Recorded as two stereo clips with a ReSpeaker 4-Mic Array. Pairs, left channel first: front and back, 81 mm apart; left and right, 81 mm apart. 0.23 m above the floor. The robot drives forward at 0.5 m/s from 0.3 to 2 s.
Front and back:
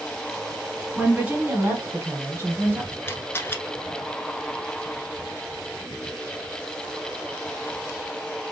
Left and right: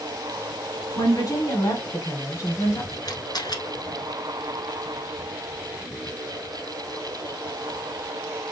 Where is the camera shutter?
60° left, 0.9 m.